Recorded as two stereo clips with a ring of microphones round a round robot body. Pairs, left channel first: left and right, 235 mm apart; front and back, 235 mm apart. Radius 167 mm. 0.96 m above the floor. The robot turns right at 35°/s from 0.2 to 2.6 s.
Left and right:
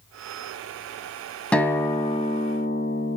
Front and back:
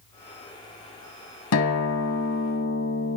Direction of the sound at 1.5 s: 5° left.